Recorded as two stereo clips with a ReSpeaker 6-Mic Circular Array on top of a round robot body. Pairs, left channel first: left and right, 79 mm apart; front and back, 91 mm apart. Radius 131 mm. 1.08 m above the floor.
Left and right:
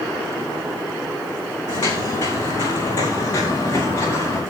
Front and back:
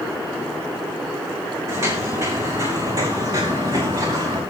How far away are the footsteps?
About 4 m.